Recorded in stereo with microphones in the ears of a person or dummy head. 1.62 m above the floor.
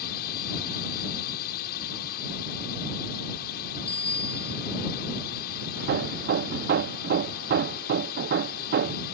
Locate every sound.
0.0 s a drone: 55° left (ahead or behind)
3.9 s a bicycle bell: 10° left (ahead or behind)
5.8 s hammering: 50° right (ahead or behind)